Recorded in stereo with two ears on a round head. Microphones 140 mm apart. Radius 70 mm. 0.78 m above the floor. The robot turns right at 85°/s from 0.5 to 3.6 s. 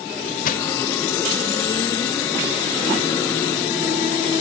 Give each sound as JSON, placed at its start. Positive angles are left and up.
{"t": 0.5, "sound": "crushing", "side_deg": 55, "distance_m": 0.8}